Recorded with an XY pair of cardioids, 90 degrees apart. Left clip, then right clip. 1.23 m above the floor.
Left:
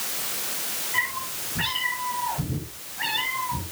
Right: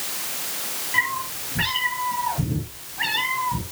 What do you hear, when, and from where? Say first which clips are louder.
0.9 s a cat meowing: right 4 dB; 30° right, 8.5 m; by 3.6 s 40° right, 9 m